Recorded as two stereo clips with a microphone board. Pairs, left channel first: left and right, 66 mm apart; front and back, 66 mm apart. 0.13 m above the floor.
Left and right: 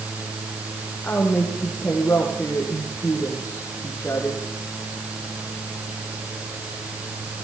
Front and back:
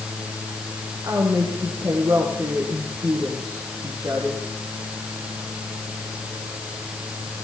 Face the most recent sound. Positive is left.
turn(degrees=155)